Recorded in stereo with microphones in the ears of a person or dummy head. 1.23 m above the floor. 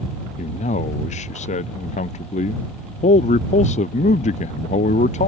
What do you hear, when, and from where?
0.4 s a man speaking: 35° left (ahead or behind)